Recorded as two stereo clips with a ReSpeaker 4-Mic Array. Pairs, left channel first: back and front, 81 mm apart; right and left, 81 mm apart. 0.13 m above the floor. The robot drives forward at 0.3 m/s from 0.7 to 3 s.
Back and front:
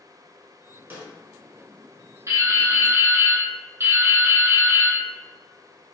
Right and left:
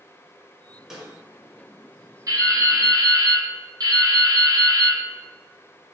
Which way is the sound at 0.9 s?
20° left.